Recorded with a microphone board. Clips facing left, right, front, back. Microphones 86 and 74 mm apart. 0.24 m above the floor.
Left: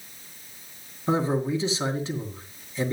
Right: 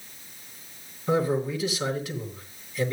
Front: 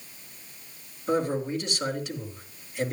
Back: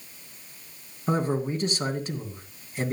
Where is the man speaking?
145° left, 2.5 m.